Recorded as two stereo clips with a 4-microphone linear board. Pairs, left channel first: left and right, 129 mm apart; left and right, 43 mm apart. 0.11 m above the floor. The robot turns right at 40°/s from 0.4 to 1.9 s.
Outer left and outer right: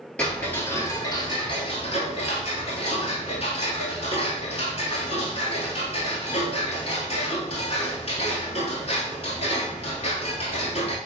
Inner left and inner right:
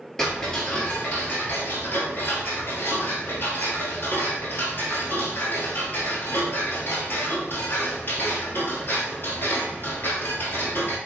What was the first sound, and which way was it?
Ticking, 10° left.